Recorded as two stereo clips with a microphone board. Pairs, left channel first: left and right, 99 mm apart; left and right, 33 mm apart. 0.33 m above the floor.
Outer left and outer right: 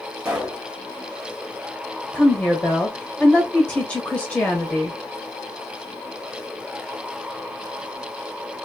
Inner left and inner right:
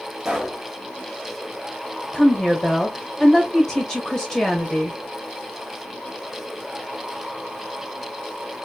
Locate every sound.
0.2 s a pop: 10° right (ahead or behind), 1.9 m
2.1 s a woman speaking: 15° left (ahead or behind), 1.0 m